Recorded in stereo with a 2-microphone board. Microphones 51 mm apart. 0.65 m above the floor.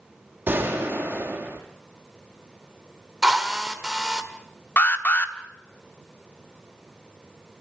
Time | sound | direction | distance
0.5 | a gunshot | 40° right (ahead or behind) | 4 m
3.2 | a drill | 10° right (ahead or behind) | 1.9 m
4.8 | an alarm | 35° left (ahead or behind) | 1.2 m